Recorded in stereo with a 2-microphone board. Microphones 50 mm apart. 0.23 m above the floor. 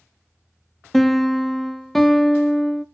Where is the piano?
5° left (ahead or behind), 0.6 m.